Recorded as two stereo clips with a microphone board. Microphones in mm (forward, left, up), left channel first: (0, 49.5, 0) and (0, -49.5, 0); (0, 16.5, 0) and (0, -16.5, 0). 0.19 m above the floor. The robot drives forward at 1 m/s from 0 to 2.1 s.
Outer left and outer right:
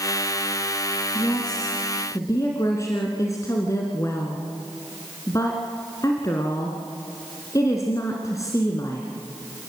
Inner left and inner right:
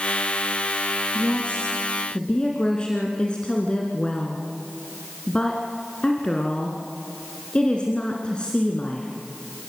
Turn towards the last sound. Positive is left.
turn(degrees=35)  # may be behind; listen again after turning